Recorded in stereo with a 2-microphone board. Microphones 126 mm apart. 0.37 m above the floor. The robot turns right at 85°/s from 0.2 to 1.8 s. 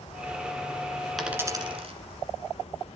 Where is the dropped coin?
Centre (ahead or behind), 1.4 m; by 1.9 s 50° right (ahead or behind), 1.4 m.